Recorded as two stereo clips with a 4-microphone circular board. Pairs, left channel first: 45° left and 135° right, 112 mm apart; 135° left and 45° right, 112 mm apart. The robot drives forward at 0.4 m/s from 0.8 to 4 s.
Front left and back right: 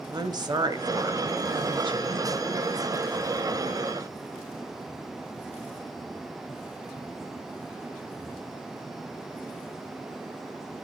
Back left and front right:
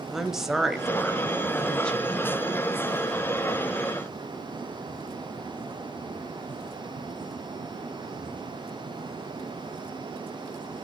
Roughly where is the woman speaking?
Behind right.